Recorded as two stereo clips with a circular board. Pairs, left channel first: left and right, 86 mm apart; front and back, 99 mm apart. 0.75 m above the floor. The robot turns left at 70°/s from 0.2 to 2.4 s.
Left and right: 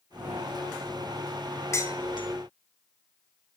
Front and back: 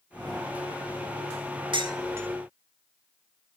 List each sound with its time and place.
1.7 s dishes clattering: 145° left, 1.1 m; by 2.3 s 110° left, 1.1 m